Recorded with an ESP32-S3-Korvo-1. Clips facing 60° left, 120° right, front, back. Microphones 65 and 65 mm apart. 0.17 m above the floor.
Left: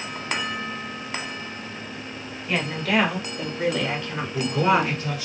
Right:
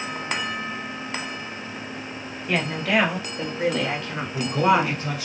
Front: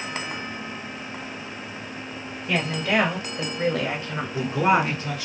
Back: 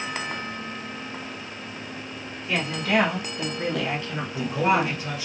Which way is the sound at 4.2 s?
95° right.